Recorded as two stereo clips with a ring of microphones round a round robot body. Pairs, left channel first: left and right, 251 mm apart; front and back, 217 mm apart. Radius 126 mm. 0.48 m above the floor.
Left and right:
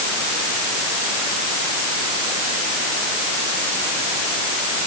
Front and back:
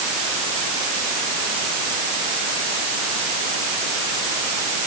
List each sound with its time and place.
Only background noise.